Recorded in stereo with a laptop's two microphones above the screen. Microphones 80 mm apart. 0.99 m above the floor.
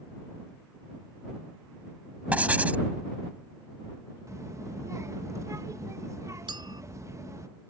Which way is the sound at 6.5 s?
75° right (ahead or behind).